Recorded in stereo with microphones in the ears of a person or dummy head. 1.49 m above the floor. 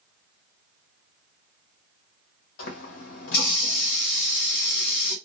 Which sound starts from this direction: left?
A running tap, at 2.6 s.